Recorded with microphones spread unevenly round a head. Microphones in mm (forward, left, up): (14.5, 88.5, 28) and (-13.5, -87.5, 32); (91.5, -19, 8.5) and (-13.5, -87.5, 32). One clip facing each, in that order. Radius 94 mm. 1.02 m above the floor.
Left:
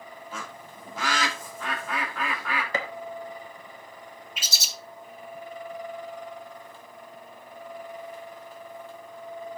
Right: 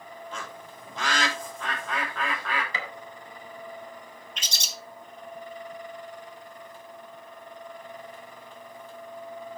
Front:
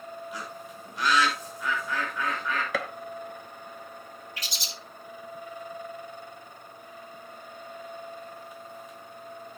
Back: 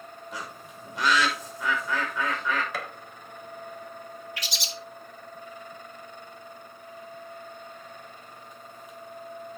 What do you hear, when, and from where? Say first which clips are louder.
0.3 s a bird: even, front 1 dB; 165° left, 2.5 m
2.7 s a gunshot: left 6 dB, front 4 dB; 35° left, 1.0 m
4.4 s a bird: even, back 3 dB; 165° left, 1.1 m